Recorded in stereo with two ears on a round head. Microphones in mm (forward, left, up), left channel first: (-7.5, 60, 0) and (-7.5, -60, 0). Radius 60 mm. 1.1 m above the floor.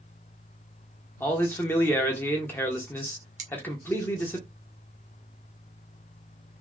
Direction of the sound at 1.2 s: 15° left (ahead or behind).